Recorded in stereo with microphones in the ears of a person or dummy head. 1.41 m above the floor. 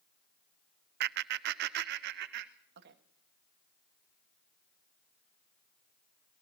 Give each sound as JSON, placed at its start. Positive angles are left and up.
{"t": 1.0, "sound": "laughter", "side_deg": -60, "distance_m": 0.5}